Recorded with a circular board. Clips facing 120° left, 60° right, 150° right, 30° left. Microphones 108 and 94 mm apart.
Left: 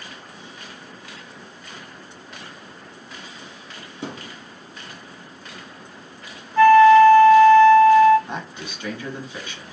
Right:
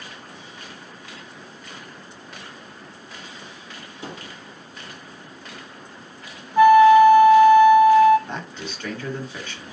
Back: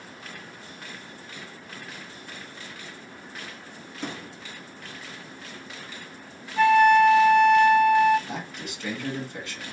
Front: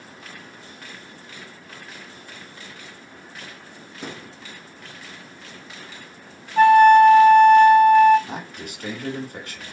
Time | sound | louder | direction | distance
4.0 | a thud | left 3 dB, back 1 dB | 115° left | 1.6 m
6.6 | a flute | left 1 dB, front 6 dB | 10° left | 0.6 m
8.3 | a man speaking | even, front 1 dB | 45° left | 1.9 m